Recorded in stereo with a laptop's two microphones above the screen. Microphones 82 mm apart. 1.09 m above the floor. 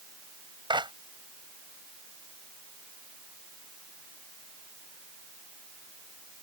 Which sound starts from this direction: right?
A clap, at 0.7 s.